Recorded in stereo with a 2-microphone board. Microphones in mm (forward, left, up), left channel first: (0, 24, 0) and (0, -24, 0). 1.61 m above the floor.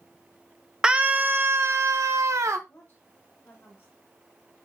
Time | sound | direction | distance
0.8 | a scream | 15° right (ahead or behind) | 0.5 m
2.7 | a woman speaking | 40° left (ahead or behind) | 8 m